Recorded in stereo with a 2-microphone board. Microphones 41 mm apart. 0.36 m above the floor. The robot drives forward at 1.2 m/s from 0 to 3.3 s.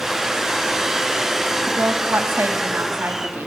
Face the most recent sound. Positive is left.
turn(degrees=-55)  # may be behind; listen again after turning